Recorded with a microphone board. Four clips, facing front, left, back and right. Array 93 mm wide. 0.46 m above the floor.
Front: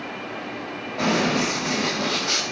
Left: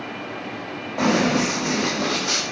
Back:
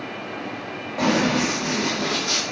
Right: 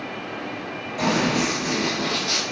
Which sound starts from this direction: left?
Running footsteps, at 1.0 s.